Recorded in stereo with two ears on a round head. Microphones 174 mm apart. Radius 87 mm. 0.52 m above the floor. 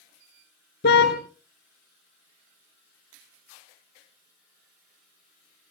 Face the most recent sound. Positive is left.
turn(degrees=60)  # may be behind; listen again after turning